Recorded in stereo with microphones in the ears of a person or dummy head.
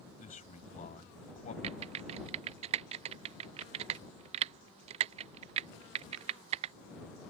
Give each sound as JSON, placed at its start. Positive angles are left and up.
{"t": 0.2, "sound": "a man speaking", "side_deg": 40}
{"t": 1.6, "sound": "typing on a keyboard", "side_deg": -35}